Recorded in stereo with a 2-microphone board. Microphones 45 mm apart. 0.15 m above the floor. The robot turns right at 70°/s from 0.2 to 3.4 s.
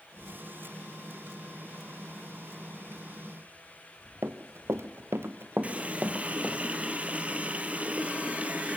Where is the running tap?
35° right (ahead or behind), 2.5 m.